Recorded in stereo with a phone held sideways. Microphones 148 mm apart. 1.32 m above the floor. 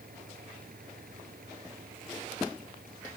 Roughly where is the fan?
Right.